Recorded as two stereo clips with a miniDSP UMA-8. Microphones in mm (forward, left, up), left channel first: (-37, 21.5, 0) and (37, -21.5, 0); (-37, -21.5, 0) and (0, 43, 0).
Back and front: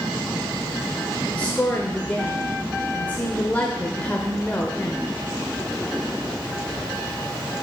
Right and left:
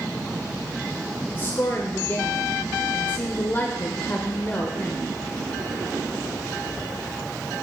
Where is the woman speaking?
155° right, 1.0 m.